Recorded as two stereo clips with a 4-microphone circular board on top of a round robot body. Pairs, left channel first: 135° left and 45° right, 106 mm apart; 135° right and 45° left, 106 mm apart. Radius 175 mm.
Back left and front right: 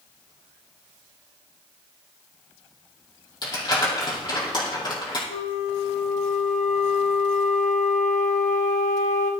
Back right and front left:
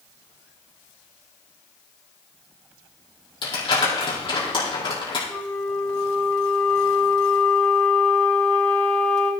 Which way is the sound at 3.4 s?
175° right.